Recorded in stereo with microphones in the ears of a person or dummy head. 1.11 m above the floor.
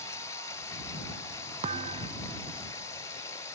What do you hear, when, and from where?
0.0 s running water: 25° left (ahead or behind)
1.6 s a thud: 25° right (ahead or behind)